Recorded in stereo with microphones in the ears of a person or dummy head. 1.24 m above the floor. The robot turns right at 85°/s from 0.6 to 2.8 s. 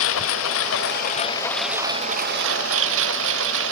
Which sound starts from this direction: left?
A lawn mower, at 0.0 s.